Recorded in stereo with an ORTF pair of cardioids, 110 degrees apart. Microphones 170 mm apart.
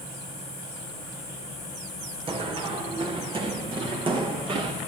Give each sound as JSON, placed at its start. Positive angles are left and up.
{"t": 2.3, "sound": "running footsteps", "azimuth_deg": -35, "distance_m": 4.5}